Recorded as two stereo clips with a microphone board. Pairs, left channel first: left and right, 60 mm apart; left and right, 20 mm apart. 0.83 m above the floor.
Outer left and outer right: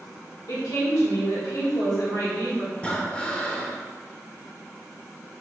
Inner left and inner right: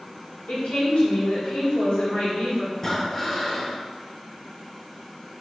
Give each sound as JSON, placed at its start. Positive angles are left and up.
{"t": 0.5, "sound": "a woman speaking", "side_deg": 75, "distance_m": 1.9}
{"t": 2.8, "sound": "breathing", "side_deg": 20, "distance_m": 0.7}